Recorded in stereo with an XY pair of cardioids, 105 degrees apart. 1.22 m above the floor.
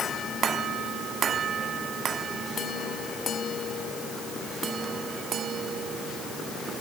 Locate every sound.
Only background noise.